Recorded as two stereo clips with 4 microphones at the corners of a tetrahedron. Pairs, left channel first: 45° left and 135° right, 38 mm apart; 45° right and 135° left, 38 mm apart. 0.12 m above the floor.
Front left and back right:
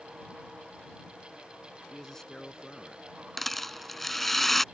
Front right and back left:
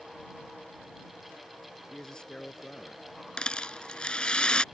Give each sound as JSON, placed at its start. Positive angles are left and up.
{"t": 1.9, "sound": "a man speaking", "azimuth_deg": -15}
{"t": 3.4, "sound": "a rattle", "azimuth_deg": -30}